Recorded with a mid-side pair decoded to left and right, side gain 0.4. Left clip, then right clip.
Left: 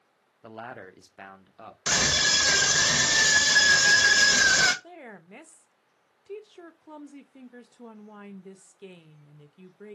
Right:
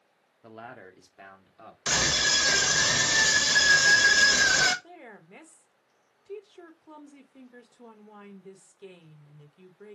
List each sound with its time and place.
0.4 s a man speaking: 30° left, 0.9 m; by 1.8 s 45° left, 1.6 m
1.9 s a scream: 25° left, 1.5 m
4.8 s a woman speaking: 25° left, 1.1 m